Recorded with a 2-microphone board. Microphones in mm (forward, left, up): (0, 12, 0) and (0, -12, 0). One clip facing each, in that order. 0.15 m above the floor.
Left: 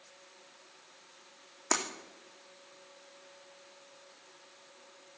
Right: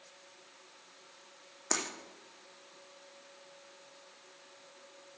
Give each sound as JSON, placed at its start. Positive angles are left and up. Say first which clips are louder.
{"t": 1.7, "sound": "breaking glass", "louder": "left 3 dB", "side_deg": 10, "distance_m": 2.5}